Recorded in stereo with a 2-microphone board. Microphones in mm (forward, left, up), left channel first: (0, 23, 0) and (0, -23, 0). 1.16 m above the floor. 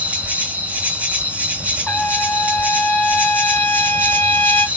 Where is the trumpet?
30° left (ahead or behind), 0.8 m.